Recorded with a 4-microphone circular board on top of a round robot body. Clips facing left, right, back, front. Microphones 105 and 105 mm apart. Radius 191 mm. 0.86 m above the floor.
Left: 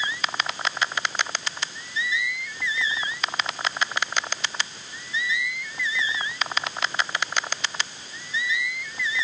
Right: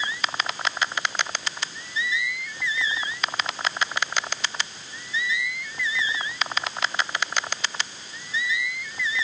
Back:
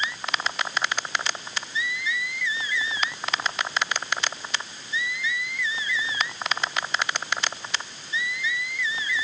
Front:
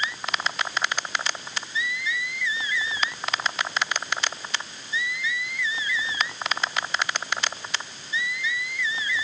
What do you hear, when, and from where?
Only background noise.